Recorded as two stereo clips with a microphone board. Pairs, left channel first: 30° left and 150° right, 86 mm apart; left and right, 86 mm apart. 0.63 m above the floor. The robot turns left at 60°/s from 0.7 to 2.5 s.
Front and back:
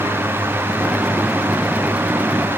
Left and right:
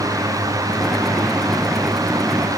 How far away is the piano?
No piano in this recording.